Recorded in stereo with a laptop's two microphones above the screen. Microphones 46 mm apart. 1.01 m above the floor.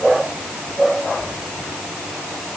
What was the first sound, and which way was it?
Only background noise.